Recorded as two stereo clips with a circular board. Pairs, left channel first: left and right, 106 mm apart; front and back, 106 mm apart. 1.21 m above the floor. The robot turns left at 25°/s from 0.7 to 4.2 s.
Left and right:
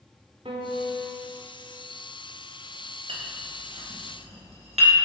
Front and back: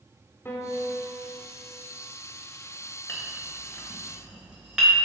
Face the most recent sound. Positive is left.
turn(degrees=-100)